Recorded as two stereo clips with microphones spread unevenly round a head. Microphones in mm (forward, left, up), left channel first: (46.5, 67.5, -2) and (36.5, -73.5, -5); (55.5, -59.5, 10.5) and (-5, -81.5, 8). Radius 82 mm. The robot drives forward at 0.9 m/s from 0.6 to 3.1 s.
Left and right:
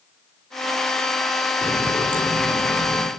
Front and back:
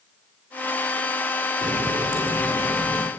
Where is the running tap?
160° left, 2.0 m; by 3.1 s 170° left, 3 m.